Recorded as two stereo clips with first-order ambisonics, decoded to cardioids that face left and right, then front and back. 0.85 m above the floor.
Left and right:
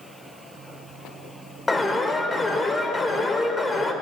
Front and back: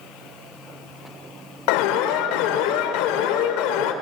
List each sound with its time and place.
1.7 s an alarm: 10° left, 2.0 m